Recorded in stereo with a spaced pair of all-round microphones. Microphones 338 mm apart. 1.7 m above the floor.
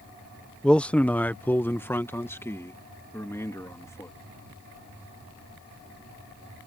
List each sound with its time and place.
0.6 s a man speaking: centre (ahead or behind); by 4.1 s 10° left (ahead or behind)